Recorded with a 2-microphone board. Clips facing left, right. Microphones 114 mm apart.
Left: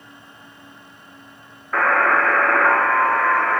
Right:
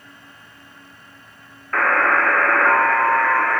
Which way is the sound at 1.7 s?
10° left (ahead or behind).